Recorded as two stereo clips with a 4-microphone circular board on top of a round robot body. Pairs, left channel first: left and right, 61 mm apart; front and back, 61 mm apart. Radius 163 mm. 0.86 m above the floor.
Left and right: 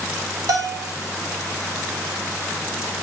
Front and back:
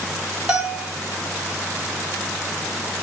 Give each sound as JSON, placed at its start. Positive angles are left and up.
{"t": 0.5, "sound": "a bell", "azimuth_deg": -105, "distance_m": 1.3}